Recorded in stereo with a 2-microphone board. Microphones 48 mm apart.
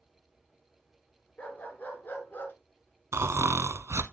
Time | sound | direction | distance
1.4 | a dog barking | 35° left (ahead or behind) | 3 m
3.1 | snoring | 75° right (ahead or behind) | 1.0 m